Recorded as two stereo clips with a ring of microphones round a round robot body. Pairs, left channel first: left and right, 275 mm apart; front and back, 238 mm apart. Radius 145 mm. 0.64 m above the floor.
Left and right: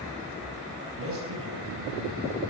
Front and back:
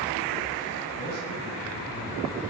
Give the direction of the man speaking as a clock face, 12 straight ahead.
1 o'clock.